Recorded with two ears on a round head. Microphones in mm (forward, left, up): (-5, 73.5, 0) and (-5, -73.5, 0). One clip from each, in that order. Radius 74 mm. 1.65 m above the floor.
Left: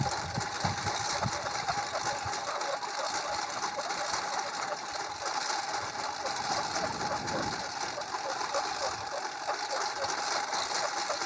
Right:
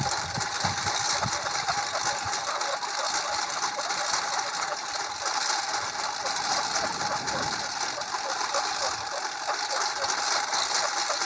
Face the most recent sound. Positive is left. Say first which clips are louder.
# right 4 dB
turn(degrees=-30)  # may be behind; listen again after turning